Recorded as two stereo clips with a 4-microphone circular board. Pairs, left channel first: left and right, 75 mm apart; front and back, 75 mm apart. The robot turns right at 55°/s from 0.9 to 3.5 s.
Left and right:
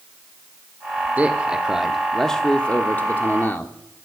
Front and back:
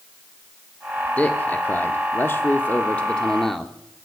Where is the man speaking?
50° right, 0.7 m; by 3.7 s 80° left, 0.7 m.